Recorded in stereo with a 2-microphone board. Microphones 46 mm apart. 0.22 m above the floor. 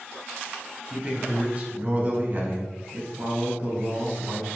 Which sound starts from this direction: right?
A man speaking, at 0.9 s.